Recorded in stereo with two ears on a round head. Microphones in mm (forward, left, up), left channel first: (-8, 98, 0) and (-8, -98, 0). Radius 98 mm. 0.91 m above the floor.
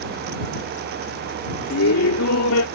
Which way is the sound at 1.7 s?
75° left (ahead or behind).